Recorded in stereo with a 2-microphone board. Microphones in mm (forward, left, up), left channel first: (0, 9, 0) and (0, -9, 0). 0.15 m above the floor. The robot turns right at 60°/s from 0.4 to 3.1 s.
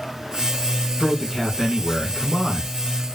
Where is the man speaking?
5° right (ahead or behind), 1.4 m; by 2.7 s 20° left (ahead or behind), 1.4 m.